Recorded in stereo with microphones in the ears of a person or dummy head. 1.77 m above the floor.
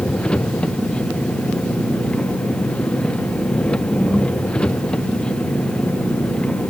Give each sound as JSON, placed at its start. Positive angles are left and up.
{"t": 0.0, "sound": "an engine running", "side_deg": 5}